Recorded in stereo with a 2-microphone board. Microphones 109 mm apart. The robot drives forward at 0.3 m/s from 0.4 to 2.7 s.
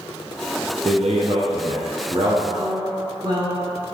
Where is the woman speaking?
40° right (ahead or behind), 1.2 m.